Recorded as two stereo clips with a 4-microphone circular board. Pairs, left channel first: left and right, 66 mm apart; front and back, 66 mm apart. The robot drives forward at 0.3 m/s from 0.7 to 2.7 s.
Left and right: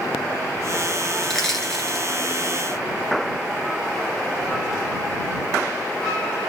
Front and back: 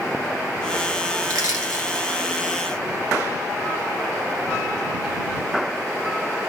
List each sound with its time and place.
1.2 s crushing: 170° left, 1.4 m